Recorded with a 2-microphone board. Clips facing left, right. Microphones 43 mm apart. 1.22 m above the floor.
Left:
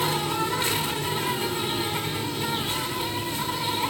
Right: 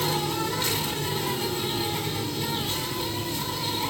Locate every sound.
0.0 s an insect: 15° left (ahead or behind), 3.5 m